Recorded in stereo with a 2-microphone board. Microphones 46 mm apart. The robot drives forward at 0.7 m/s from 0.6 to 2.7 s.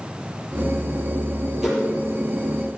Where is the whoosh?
10° right (ahead or behind), 7.5 m.